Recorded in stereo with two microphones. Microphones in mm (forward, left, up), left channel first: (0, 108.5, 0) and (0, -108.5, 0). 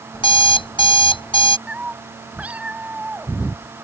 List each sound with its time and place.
0.1 s an alarm clock: 25° left (ahead or behind)
1.7 s a cat meowing: 5° right (ahead or behind)